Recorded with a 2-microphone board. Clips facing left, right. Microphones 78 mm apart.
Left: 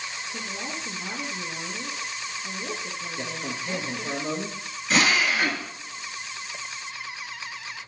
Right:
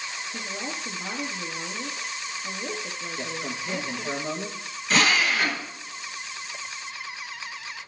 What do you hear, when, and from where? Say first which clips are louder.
0.3 s a woman speaking: right 1 dB; 15° right (ahead or behind), 1.5 m
3.2 s a man speaking: right 1 dB; 5° left (ahead or behind), 1.7 m
4.9 s a drill: even; 5° left (ahead or behind), 1.4 m